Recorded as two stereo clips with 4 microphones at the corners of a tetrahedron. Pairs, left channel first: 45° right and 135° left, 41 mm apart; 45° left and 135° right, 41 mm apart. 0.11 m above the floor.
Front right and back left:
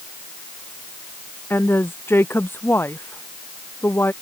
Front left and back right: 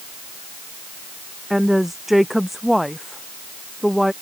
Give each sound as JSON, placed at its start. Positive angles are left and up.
{"t": 1.5, "sound": "a woman speaking", "azimuth_deg": -50}